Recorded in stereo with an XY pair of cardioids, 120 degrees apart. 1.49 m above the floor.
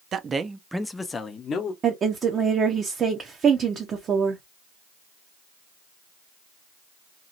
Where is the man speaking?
45° right, 0.6 m; by 1.7 s 45° left, 0.9 m.